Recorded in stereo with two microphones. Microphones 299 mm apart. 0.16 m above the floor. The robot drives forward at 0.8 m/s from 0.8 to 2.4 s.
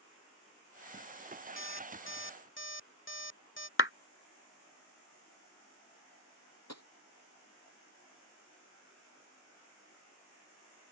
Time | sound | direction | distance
1.6 | an alarm clock | 40° left (ahead or behind) | ?
3.8 | a clap | 45° left (ahead or behind) | ?
6.7 | tapping | 60° left (ahead or behind) | ?